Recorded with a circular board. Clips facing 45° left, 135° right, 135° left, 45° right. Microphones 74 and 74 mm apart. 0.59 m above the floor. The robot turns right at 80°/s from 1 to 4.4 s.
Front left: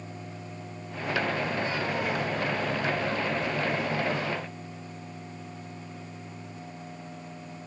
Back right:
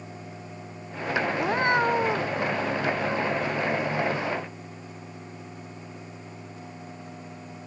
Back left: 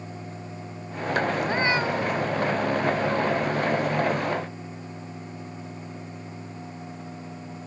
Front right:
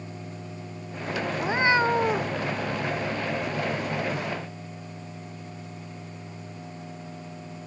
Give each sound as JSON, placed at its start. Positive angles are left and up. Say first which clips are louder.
{"t": 1.4, "sound": "a cat meowing", "louder": "back right 7 dB, front right 1 dB", "azimuth_deg": -140}